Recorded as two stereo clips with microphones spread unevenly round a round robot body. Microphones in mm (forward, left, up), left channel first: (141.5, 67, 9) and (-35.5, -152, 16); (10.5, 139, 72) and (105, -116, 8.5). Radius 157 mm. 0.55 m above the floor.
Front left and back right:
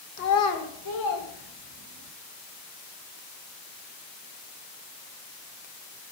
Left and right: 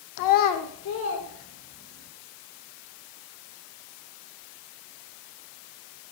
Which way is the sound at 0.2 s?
110° left.